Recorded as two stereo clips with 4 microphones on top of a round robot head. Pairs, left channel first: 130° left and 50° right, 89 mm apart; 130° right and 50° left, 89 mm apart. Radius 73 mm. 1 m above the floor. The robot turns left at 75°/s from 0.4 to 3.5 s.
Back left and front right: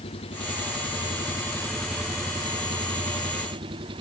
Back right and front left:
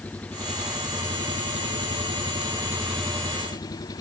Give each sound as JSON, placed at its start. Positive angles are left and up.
{"t": 0.0, "sound": "an engine running", "azimuth_deg": 150}